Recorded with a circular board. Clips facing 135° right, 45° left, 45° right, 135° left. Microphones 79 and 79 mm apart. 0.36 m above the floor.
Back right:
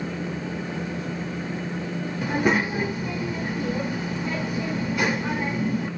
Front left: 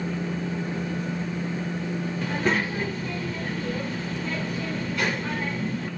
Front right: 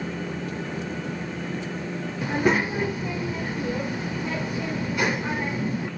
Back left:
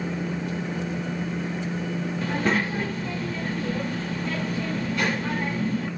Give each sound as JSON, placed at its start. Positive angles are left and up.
{"t": 2.2, "sound": "a child speaking", "azimuth_deg": -85, "distance_m": 0.5}